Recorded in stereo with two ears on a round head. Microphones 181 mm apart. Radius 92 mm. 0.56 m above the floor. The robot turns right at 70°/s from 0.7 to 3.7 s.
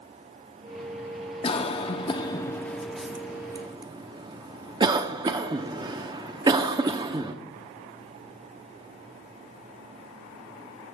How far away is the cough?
About 0.7 m.